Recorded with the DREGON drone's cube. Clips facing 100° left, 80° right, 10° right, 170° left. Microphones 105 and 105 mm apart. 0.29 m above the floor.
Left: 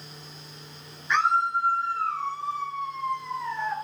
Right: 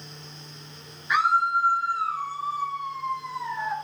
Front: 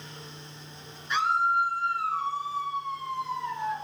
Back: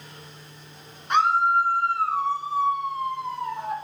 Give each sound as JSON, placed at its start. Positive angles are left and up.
{"t": 1.1, "sound": "a scream", "azimuth_deg": -160, "distance_m": 4.0}